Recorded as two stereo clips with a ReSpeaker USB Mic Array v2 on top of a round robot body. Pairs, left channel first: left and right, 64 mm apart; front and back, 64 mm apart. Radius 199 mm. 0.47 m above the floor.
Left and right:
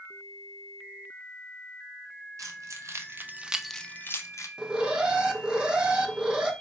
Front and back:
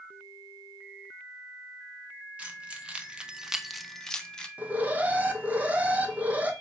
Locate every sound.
2.4 s keys jangling: 110° right, 1.0 m; by 4.5 s 75° left, 0.8 m
4.6 s an alarm: 155° right, 0.8 m